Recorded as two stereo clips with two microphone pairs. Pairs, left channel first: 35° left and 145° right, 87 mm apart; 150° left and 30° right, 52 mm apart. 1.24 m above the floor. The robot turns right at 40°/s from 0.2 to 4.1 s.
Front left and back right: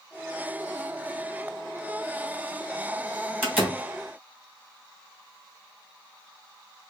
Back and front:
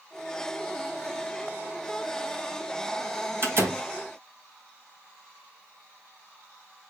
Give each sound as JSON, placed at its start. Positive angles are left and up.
{"t": 3.4, "sound": "a door slam", "azimuth_deg": -75, "distance_m": 1.5}